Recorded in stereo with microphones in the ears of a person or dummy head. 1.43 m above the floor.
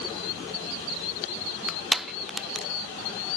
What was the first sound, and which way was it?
Crushing, centre (ahead or behind).